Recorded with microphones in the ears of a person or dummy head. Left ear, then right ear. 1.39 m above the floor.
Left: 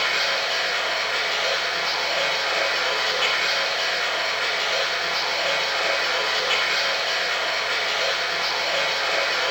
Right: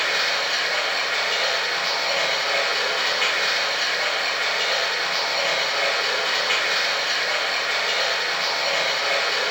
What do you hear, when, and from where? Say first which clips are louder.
0.0 s running water: even; 10° right (ahead or behind), 1.5 m